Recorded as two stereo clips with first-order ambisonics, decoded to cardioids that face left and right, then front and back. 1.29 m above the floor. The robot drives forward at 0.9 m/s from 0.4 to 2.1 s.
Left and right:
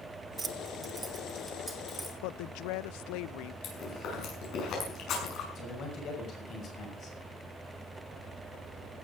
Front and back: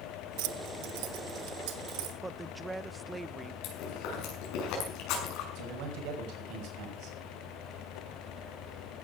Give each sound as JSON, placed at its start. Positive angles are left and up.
{"t": 0.4, "sound": "keys jangling", "azimuth_deg": -160, "distance_m": 0.8}
{"t": 2.2, "sound": "a woman speaking", "azimuth_deg": 95, "distance_m": 0.6}
{"t": 3.6, "sound": "chewing", "azimuth_deg": 35, "distance_m": 6.5}
{"t": 5.5, "sound": "a man speaking", "azimuth_deg": 150, "distance_m": 6.0}